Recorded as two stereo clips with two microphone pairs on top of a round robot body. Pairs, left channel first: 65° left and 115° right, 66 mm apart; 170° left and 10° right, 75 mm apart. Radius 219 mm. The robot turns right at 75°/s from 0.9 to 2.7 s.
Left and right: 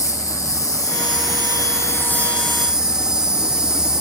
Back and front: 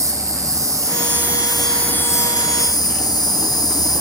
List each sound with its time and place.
0.0 s an insect: 35° left, 1.9 m; by 4.0 s 170° left, 1.9 m